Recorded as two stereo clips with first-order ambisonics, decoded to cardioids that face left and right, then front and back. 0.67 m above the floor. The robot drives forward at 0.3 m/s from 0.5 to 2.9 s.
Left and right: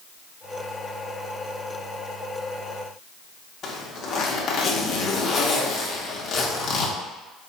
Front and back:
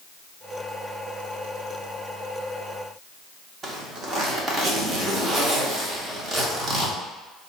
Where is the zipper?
130° left, 1.0 m.